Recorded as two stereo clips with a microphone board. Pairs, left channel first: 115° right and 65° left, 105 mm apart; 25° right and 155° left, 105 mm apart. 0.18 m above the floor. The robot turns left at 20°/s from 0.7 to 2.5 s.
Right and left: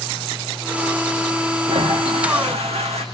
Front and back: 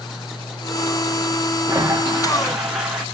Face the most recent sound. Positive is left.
turn(degrees=75)